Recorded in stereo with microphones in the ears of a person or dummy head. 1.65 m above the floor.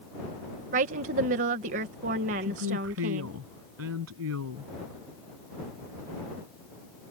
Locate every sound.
0.7 s a woman speaking: 50° right (ahead or behind)
2.4 s a woman speaking: 85° right